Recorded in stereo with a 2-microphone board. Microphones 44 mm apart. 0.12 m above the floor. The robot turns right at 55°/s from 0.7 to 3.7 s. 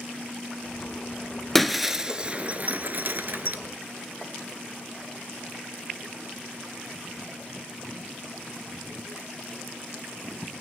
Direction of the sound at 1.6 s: 5° left (ahead or behind).